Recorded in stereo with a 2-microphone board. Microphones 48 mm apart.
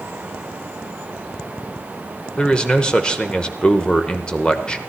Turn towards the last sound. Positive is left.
turn(degrees=20)  # may be behind; listen again after turning